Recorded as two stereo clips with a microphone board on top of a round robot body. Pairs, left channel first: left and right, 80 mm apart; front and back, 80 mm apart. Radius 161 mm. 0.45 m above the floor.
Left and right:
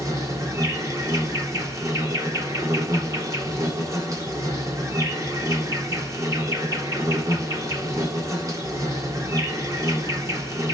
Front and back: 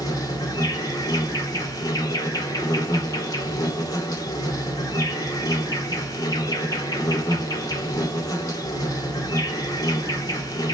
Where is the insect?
40° right, 2.5 m.